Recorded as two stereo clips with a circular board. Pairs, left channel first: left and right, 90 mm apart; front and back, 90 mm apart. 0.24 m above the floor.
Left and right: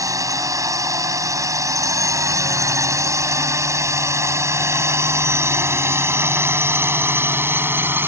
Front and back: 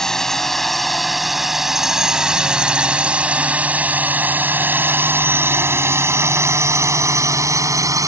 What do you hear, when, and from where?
0.0 s a drone: 80° right; by 8.1 s 145° right